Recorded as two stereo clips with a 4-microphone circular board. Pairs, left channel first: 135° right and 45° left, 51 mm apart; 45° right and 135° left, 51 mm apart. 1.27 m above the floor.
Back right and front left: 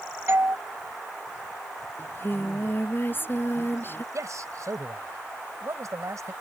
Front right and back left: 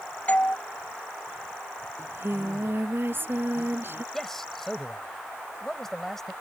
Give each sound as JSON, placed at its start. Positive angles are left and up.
{"t": 0.3, "sound": "a doorbell", "azimuth_deg": 15}
{"t": 2.0, "sound": "singing", "azimuth_deg": 180}
{"t": 4.1, "sound": "a man speaking", "azimuth_deg": 40}